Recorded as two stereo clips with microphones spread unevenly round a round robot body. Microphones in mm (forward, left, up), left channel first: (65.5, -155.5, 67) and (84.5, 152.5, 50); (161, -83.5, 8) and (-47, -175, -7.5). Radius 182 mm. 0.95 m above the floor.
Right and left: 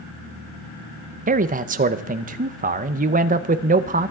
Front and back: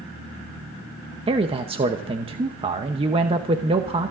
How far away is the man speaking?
About 0.7 m.